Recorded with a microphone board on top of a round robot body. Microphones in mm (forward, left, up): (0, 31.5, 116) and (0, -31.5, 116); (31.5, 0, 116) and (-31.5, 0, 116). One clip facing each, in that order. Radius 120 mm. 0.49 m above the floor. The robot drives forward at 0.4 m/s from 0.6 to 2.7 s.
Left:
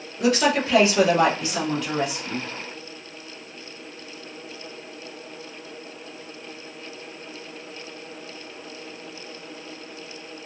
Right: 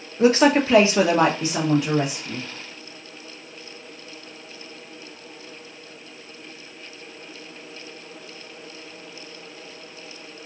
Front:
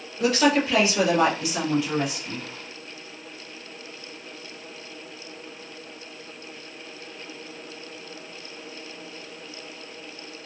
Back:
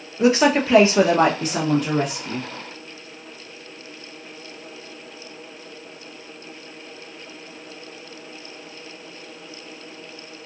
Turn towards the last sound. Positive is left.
turn(degrees=-160)